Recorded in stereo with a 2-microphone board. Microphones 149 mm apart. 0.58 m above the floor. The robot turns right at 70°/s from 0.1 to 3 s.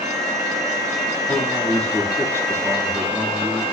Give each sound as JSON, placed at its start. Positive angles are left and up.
{"t": 1.3, "sound": "a man speaking", "side_deg": -20, "distance_m": 1.3}